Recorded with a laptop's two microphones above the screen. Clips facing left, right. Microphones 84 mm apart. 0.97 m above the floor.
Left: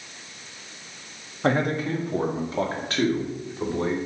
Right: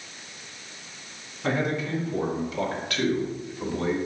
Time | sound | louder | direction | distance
1.4 | a man speaking | left 3 dB | 50° left (ahead or behind) | 1.6 m